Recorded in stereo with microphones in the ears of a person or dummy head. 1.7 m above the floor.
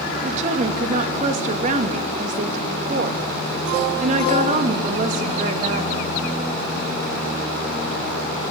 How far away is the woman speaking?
About 3 m.